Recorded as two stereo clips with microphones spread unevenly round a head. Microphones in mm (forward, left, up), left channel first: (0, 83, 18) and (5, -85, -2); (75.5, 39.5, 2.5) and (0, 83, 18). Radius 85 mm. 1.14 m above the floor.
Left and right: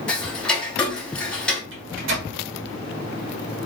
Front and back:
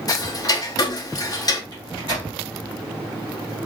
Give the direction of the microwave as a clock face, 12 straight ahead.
4 o'clock.